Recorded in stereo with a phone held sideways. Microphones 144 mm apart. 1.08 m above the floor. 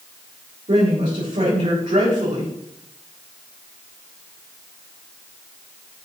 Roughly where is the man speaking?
Right.